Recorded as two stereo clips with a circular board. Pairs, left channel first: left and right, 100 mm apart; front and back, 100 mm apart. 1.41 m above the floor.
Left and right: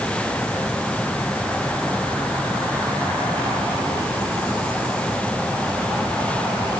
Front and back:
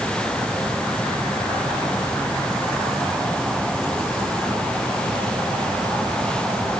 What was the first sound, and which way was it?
Only background noise.